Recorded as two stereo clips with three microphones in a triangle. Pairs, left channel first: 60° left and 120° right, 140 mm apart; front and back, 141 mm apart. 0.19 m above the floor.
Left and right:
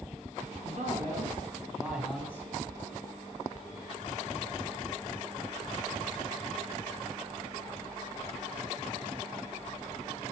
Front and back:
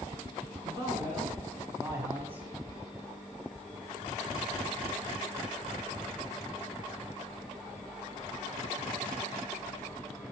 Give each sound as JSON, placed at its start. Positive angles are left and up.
{"t": 0.7, "sound": "a man speaking", "azimuth_deg": -120, "distance_m": 2.0}